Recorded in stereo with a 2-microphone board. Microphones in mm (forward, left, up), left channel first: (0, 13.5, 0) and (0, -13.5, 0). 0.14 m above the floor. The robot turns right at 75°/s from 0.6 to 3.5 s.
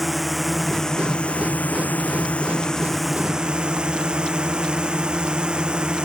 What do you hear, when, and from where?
0.0 s a drone: straight ahead; by 6.1 s 145° right